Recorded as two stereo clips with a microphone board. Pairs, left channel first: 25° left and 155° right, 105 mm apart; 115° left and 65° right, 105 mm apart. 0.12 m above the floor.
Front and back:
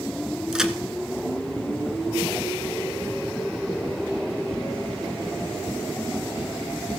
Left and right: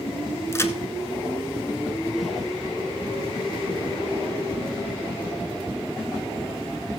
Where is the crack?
130° left, 1.0 m.